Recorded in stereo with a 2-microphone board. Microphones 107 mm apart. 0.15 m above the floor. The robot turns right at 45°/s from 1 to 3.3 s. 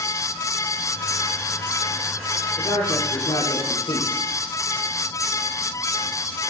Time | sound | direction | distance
2.6 | a man speaking | 50° left | 5.5 m